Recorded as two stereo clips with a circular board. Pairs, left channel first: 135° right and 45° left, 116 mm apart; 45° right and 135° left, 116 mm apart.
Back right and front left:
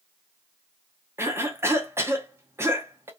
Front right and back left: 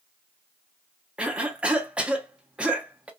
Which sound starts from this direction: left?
A cough, at 1.2 s.